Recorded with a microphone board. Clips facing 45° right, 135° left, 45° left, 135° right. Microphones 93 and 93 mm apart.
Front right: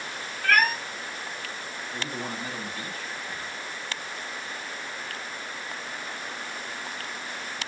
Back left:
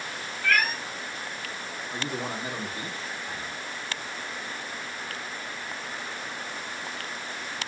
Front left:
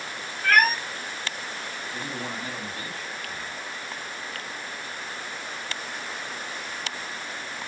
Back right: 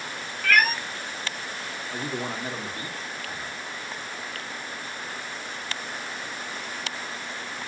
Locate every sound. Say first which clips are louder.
0.4 s a cat meowing: front right 3 dB, front left 2 dB; 5° right, 0.6 m
1.9 s a man speaking: back left 2 dB, back right 4 dB; 175° right, 0.8 m